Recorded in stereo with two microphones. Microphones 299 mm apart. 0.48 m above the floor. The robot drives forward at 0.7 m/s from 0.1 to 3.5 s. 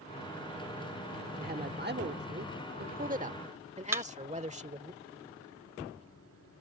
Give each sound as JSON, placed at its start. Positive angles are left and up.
{"t": 1.4, "sound": "a man speaking", "side_deg": -30}
{"t": 3.9, "sound": "a thud", "side_deg": -10}